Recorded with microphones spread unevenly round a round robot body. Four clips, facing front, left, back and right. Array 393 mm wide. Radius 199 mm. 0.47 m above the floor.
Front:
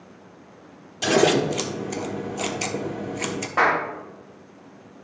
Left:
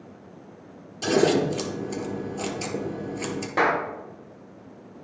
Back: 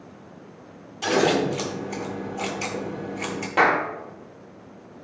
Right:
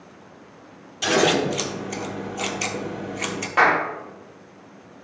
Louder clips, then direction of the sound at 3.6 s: Right 4 dB, back 1 dB; 140° left.